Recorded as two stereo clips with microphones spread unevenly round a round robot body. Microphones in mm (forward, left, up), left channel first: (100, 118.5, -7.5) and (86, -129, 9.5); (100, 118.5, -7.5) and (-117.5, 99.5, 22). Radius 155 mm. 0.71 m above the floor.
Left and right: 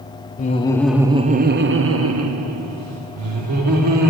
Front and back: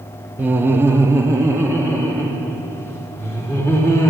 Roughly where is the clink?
No clink in this recording.